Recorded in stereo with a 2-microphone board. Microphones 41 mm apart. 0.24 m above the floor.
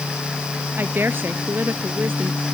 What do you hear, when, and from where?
0.8 s a woman speaking: 55° right (ahead or behind)